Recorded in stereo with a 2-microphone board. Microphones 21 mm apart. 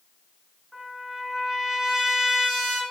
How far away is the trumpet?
About 2 m.